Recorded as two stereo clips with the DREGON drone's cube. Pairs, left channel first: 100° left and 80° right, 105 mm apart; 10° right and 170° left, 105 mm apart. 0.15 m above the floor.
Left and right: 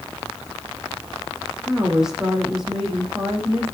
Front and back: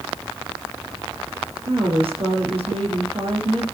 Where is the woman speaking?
165° right, 5.5 m.